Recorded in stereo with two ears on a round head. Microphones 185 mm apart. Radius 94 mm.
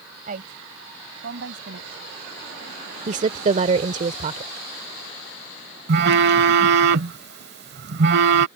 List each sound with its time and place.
0.3 s a woman speaking: 40° right (ahead or behind); by 2.1 s 65° right (ahead or behind)
3.1 s a woman speaking: 35° right (ahead or behind)
5.9 s a phone buzzing: 50° right (ahead or behind)